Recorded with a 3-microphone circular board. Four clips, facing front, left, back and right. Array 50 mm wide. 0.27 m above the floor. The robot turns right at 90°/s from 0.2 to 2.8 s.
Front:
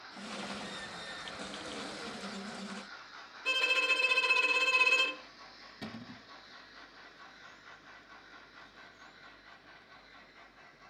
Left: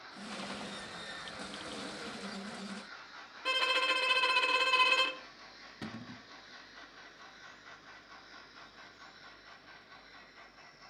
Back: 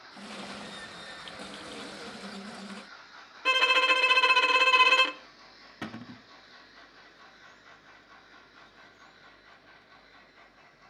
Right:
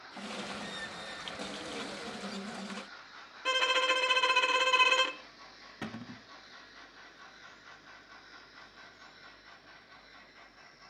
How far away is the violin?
About 0.8 m.